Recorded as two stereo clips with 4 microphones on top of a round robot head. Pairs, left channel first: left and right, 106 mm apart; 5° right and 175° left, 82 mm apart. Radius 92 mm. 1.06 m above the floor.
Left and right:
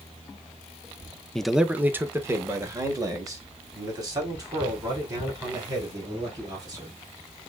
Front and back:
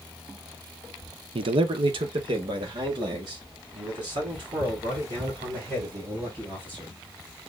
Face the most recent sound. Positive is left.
turn(degrees=-140)